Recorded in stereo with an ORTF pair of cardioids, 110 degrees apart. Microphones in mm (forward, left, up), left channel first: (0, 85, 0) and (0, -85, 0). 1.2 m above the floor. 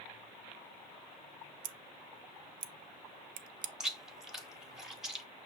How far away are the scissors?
About 0.5 m.